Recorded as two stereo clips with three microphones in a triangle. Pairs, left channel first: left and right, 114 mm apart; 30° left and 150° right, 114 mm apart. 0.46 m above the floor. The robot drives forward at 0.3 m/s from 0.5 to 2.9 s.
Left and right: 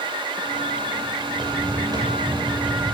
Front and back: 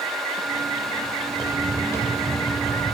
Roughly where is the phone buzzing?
I don't hear a phone buzzing.